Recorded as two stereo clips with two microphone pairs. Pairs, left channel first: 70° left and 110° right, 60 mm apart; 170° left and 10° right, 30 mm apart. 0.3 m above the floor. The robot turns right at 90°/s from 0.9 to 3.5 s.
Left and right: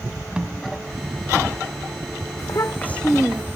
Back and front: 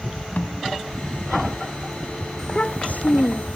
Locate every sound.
0.4 s a snare drum: 175° left
2.4 s a child speaking: 90° left; by 3.6 s 170° right